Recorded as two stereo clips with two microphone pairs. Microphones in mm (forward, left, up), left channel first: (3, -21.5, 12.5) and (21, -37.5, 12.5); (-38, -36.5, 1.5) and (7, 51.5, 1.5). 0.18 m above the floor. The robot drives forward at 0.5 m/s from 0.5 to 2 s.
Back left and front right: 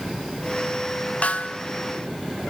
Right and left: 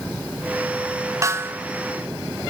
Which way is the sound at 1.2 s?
120° left.